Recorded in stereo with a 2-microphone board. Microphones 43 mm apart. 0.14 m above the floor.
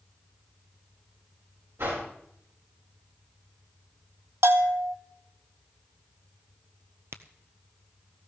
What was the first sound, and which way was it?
A whoosh, 85° right.